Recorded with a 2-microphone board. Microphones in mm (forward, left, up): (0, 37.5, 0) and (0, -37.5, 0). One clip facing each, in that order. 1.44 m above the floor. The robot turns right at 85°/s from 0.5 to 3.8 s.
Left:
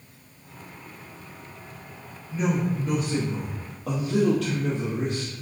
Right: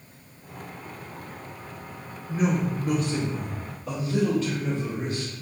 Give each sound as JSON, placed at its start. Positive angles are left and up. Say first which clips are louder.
{"t": 2.3, "sound": "a woman speaking", "louder": "even", "azimuth_deg": -55, "distance_m": 1.3}